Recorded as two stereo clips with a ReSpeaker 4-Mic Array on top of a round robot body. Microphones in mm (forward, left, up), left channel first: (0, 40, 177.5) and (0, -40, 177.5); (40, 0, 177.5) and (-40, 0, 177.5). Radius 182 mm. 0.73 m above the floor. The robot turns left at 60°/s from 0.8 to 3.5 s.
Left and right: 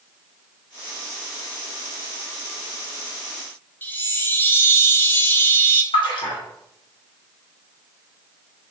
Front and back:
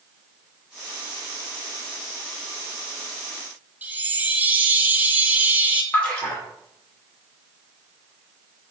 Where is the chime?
130° left, 0.8 m.